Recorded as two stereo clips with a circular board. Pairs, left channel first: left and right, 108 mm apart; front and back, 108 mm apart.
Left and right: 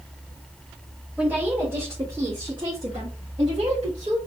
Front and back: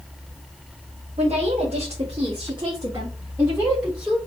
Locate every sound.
1.2 s a woman speaking: 170° right, 2 m; by 4.2 s 95° right, 2 m